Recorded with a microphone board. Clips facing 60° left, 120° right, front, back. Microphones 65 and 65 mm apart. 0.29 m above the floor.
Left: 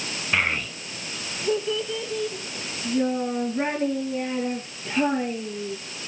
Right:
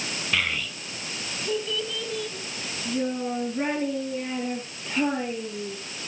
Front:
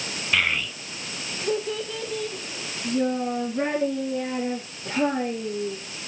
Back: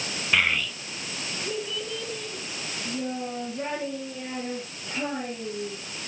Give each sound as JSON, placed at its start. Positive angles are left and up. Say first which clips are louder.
{"t": 0.3, "sound": "a child speaking", "louder": "left 4 dB, even", "azimuth_deg": 105, "distance_m": 0.7}